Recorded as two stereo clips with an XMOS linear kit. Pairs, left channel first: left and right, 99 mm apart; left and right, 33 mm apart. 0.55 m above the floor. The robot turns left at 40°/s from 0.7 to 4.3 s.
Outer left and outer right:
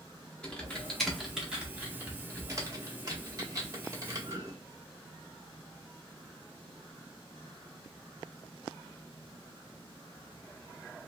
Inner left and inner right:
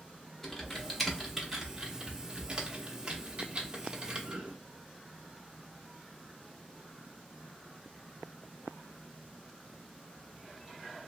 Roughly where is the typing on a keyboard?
Centre.